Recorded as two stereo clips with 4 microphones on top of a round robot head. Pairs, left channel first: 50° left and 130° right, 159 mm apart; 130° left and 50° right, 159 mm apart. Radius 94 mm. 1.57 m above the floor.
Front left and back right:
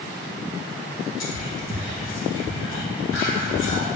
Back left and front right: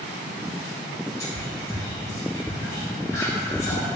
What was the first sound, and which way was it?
Whispering, 55° left.